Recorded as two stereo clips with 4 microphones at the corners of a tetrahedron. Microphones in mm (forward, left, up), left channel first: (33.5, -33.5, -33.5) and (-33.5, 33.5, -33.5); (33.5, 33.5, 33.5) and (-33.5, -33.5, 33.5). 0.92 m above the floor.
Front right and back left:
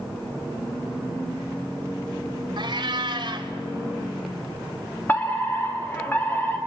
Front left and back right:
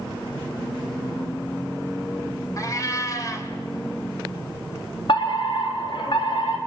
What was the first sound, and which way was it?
A cat meowing, 100° left.